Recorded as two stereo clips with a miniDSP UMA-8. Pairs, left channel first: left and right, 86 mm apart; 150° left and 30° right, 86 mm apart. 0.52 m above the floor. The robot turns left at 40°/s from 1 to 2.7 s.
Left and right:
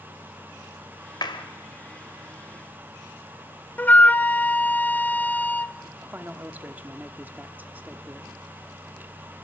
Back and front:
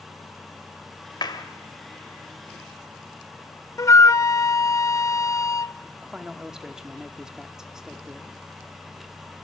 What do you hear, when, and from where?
1.2 s a clap: 120° left, 1.6 m; by 1.4 s 110° left, 1.6 m
3.8 s a flute: 145° left, 0.5 m
6.0 s a man speaking: 100° right, 1.2 m